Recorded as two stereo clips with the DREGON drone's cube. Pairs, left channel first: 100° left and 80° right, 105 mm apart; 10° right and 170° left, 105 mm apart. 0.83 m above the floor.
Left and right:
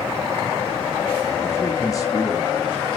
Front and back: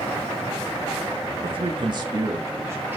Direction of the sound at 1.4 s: 160° left.